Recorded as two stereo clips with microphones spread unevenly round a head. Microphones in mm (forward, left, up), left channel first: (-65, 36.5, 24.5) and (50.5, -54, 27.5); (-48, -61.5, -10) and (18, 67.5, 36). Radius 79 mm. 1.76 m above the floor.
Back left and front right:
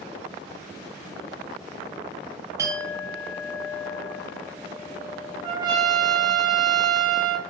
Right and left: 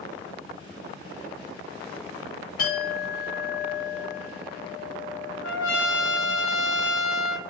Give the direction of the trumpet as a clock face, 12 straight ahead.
3 o'clock.